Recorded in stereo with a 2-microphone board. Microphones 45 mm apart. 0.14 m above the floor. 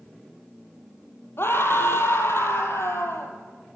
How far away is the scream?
About 4 m.